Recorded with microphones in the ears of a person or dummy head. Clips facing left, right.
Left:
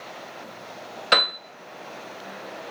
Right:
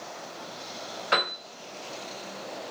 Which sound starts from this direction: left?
A piano, at 1.1 s.